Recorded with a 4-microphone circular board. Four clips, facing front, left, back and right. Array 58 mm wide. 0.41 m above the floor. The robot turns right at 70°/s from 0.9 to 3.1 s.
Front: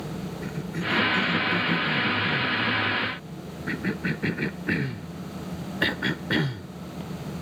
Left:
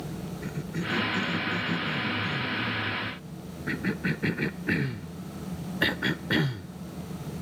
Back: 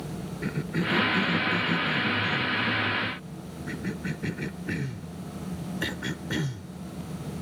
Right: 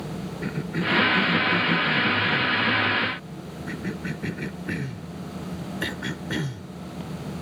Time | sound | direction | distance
0.4 | a cough | 120° right | ?